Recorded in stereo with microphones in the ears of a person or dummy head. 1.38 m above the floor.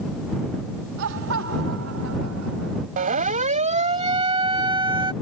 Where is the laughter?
60° right (ahead or behind); by 2.9 s 85° right.